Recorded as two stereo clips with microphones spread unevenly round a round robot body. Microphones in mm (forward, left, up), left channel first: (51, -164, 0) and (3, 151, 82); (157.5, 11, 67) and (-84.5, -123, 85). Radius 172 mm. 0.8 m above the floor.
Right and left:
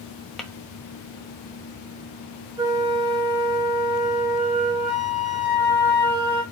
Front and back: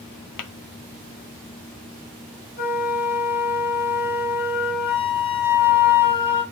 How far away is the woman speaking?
No woman speaking in this recording.